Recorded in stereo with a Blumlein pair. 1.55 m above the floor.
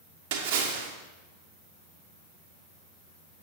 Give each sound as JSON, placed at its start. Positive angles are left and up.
{"t": 0.3, "sound": "a splash", "azimuth_deg": -50, "distance_m": 1.3}